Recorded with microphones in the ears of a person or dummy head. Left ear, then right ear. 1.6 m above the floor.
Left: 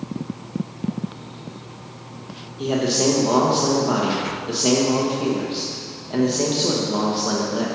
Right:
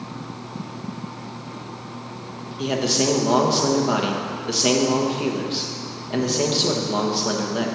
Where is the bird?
I don't hear a bird.